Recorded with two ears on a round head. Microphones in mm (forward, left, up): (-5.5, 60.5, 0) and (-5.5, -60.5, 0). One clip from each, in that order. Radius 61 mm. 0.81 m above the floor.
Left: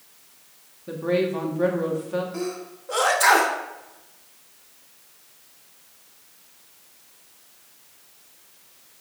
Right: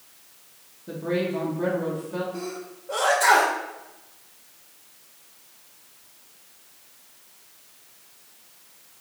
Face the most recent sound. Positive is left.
turn(degrees=50)  # may be behind; listen again after turning